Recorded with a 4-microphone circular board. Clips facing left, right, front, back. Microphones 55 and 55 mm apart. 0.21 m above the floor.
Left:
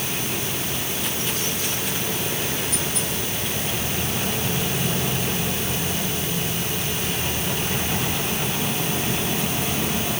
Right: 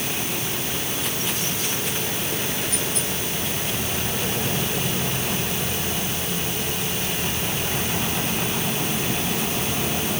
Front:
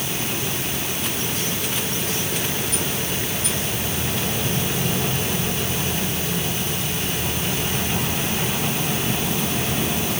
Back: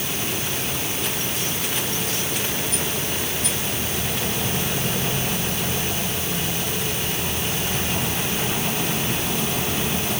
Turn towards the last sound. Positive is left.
No sound to turn to.